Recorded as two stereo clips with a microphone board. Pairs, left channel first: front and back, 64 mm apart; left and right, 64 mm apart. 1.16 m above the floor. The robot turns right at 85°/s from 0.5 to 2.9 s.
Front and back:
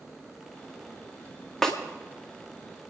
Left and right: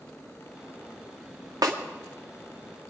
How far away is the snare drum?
About 1.9 m.